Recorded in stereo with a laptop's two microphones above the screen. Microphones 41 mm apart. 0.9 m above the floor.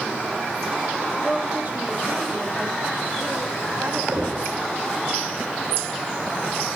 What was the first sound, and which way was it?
A woman speaking, 25° right (ahead or behind).